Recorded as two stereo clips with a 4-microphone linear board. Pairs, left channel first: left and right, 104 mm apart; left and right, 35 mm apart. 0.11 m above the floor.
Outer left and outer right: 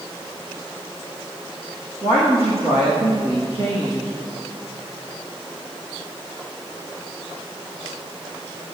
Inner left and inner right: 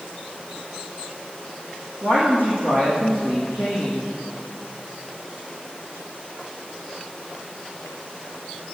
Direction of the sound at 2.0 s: 75° right (ahead or behind).